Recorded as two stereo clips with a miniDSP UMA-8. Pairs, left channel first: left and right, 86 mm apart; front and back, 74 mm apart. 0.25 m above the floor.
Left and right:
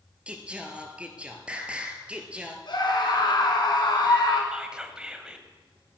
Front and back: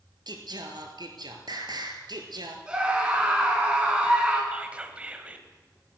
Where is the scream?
105° left, 2.5 m.